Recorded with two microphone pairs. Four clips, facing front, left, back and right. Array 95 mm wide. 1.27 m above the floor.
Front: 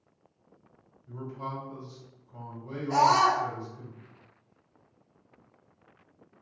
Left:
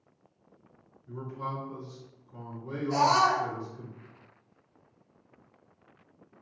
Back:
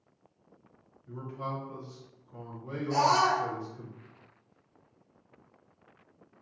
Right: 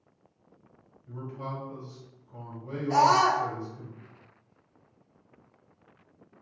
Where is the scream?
65° right, 0.7 m.